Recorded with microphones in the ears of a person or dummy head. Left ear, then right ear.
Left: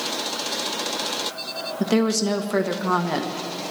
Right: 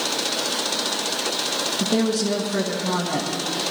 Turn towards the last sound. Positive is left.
turn(degrees=65)  # may be behind; listen again after turning